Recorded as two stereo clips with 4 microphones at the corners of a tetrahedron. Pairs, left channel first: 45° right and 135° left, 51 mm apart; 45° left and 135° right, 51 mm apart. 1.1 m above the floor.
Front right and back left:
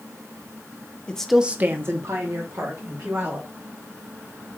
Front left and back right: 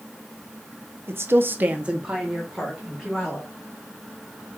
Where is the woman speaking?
110° right, 0.6 m; by 3.5 s 135° left, 2.5 m.